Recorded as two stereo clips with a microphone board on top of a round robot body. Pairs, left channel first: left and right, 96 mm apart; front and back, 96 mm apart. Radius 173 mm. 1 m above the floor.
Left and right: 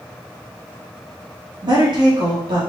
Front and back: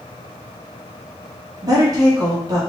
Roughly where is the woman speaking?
Behind right.